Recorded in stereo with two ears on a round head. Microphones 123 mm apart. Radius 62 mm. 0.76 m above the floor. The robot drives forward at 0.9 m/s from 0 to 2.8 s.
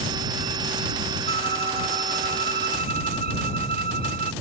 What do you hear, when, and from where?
1.3 s a violin: 85° right; by 4.3 s 75° right (ahead or behind)